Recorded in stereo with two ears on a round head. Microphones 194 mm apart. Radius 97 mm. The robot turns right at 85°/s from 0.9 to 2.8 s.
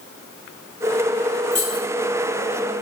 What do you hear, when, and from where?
1.5 s keys jangling: 10° left (ahead or behind), 1.9 m; by 1.8 s 35° left (ahead or behind), 1.9 m